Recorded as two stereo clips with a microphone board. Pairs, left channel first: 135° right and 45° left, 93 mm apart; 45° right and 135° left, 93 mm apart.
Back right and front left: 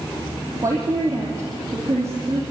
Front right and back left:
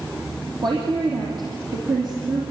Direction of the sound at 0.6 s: 100° left.